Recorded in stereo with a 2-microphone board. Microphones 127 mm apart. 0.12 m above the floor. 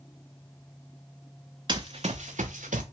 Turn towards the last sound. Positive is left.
turn(degrees=-85)